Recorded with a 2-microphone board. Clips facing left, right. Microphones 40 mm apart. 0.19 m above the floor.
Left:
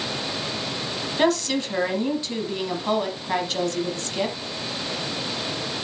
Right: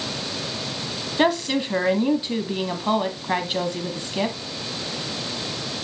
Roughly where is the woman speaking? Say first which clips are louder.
Right 1 dB; centre.